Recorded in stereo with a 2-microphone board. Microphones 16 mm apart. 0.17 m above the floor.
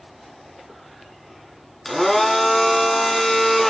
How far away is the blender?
About 1.1 m.